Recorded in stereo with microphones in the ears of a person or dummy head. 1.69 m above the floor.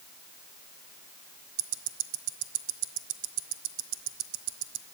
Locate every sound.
1.6 s ticking: 70° right (ahead or behind), 0.8 m